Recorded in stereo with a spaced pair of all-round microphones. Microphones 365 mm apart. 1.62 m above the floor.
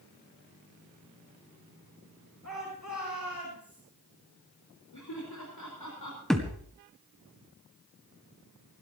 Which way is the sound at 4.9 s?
65° left (ahead or behind).